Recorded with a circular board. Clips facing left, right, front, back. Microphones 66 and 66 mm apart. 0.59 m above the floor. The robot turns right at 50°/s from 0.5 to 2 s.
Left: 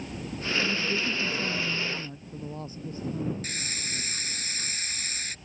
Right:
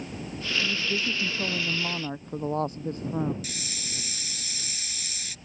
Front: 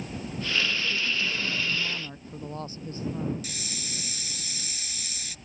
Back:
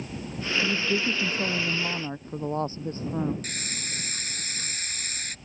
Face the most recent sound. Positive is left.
turn(degrees=140)